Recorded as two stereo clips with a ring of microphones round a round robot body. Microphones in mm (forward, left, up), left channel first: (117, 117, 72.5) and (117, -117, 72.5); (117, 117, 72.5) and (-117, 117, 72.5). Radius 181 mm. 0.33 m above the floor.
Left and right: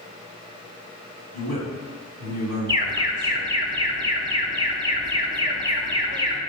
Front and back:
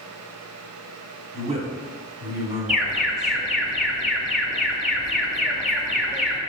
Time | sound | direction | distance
1.3 | a man speaking | 150° right | 3 m
2.7 | an alarm | 110° right | 2.0 m